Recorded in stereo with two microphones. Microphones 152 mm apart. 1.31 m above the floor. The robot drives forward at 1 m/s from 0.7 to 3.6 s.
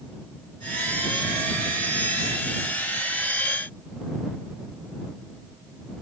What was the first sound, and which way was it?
Only background noise.